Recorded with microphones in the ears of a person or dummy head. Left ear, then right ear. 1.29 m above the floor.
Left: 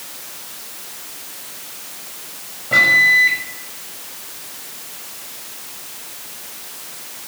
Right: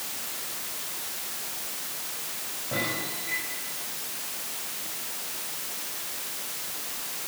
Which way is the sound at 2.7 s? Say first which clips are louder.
Left 21 dB; 70° left (ahead or behind).